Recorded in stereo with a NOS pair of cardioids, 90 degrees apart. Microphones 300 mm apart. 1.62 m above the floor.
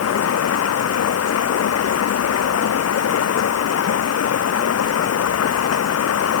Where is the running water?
55° left.